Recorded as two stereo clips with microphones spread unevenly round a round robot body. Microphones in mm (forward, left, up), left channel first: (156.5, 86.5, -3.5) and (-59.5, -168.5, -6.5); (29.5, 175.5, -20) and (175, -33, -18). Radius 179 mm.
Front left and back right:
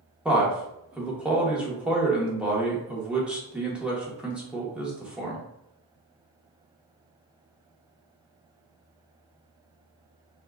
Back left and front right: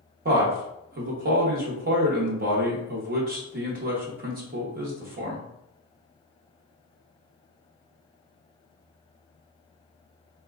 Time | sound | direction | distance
0.2 | a man speaking | 45° right | 0.8 m